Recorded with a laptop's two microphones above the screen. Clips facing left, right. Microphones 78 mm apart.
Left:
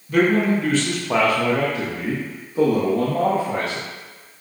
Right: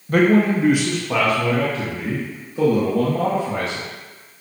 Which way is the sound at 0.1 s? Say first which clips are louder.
Right 2 dB; 50° right (ahead or behind).